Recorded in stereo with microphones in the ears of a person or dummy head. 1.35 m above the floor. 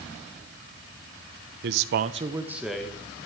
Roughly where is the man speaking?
Right.